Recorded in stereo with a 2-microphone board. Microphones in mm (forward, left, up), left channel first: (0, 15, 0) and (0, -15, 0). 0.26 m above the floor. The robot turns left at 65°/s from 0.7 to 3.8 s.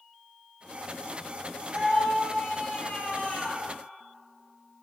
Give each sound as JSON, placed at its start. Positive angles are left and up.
{"t": 1.7, "sound": "a scream", "azimuth_deg": -145, "distance_m": 6.5}